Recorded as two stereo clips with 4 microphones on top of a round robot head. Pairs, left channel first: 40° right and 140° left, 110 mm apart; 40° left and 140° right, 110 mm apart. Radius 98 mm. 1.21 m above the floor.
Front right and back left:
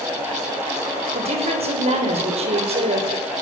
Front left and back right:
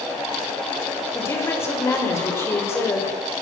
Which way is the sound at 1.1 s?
110° left.